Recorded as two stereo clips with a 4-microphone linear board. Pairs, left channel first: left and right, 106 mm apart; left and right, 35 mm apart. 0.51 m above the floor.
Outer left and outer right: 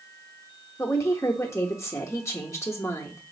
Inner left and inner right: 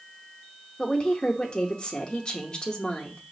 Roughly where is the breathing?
I don't hear breathing.